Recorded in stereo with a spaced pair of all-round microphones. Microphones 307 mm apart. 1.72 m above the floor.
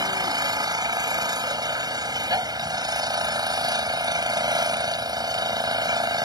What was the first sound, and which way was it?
An engine running, 15° right (ahead or behind).